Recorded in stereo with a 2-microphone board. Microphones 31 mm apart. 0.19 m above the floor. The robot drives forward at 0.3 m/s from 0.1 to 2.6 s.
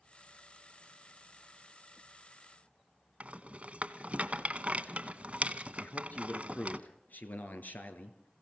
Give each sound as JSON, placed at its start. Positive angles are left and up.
{"t": 3.2, "sound": "a rattle", "side_deg": -40, "distance_m": 1.1}
{"t": 5.8, "sound": "a man speaking", "side_deg": 65, "distance_m": 2.5}